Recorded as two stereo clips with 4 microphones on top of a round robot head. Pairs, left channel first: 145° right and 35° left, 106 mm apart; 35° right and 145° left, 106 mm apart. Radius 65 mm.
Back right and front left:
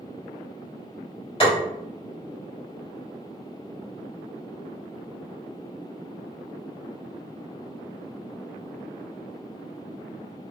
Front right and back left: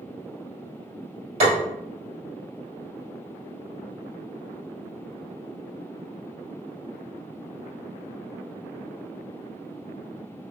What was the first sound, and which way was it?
Tapping, 175° left.